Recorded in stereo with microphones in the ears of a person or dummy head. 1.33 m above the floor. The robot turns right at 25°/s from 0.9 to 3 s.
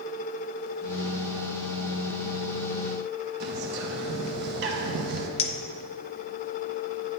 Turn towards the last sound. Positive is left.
turn(degrees=35)  # may be behind; listen again after turning